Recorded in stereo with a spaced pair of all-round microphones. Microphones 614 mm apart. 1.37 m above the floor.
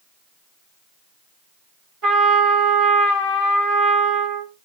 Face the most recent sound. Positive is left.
turn(degrees=-55)  # may be behind; listen again after turning